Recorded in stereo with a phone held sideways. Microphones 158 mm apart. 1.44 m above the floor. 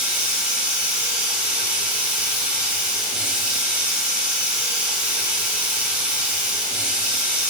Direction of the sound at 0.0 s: 10° right (ahead or behind).